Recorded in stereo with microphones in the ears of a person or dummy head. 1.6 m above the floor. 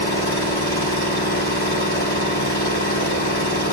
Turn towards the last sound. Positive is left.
turn(degrees=55)  # may be behind; listen again after turning